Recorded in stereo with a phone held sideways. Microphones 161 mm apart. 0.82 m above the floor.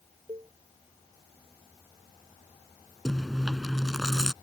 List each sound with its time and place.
0.3 s a cowbell: 30° right (ahead or behind)
3.0 s chewing: centre (ahead or behind)